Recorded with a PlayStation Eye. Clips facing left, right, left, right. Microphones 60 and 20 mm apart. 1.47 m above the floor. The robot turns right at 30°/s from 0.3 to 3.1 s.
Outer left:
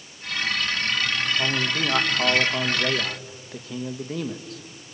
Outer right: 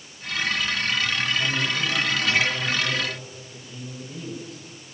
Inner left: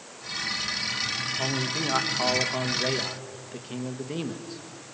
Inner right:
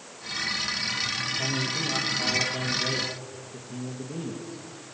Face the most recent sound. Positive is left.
turn(degrees=90)